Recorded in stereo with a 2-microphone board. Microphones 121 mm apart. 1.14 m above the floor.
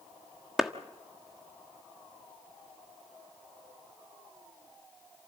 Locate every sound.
0.6 s a clap: 5° right (ahead or behind), 1.3 m